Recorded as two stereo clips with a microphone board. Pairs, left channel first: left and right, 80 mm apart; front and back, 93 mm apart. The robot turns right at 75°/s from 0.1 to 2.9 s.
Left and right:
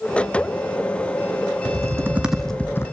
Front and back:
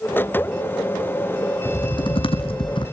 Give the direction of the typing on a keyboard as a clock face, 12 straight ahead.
2 o'clock.